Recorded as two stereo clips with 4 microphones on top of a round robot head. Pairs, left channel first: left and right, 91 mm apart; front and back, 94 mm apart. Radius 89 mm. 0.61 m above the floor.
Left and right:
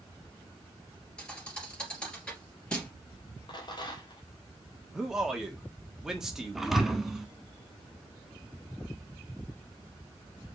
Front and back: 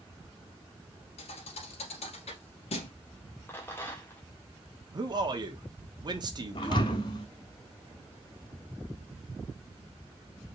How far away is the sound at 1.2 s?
About 2.5 m.